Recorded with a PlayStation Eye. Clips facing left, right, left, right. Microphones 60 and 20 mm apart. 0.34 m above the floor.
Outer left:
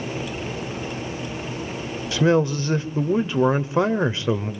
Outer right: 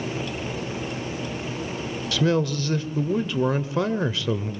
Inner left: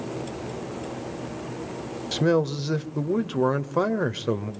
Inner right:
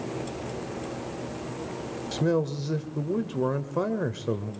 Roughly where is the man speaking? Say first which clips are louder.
Outer left 4 dB, inner left 4 dB; left.